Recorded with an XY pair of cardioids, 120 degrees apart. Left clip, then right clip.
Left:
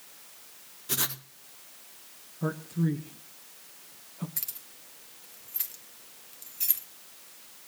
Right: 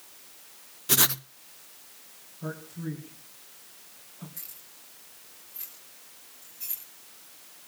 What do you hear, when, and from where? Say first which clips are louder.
0.9 s writing: right 7 dB; 40° right, 0.6 m
2.4 s a man speaking: left 6 dB; 50° left, 2 m
4.4 s keys jangling: left 5 dB; 65° left, 2.5 m